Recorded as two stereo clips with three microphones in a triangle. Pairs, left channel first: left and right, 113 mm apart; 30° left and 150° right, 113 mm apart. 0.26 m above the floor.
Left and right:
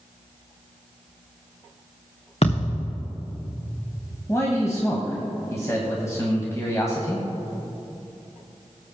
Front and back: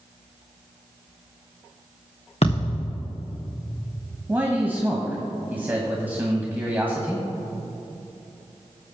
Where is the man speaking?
140° left, 1.5 m.